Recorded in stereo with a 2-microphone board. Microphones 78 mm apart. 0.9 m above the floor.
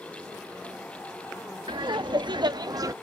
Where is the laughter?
75° right (ahead or behind); by 2.9 s 45° right (ahead or behind).